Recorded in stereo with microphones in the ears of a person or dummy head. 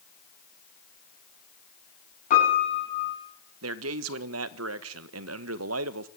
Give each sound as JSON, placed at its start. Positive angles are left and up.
{"t": 2.3, "sound": "a piano", "side_deg": 45, "distance_m": 8.0}
{"t": 3.6, "sound": "a man speaking", "side_deg": -75, "distance_m": 1.3}